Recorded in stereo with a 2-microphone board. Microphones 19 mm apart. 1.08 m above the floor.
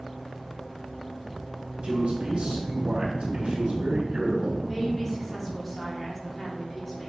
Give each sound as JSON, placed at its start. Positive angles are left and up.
{"t": 1.8, "sound": "a man speaking", "side_deg": -65, "distance_m": 4.0}
{"t": 4.7, "sound": "a woman speaking", "side_deg": 5, "distance_m": 3.0}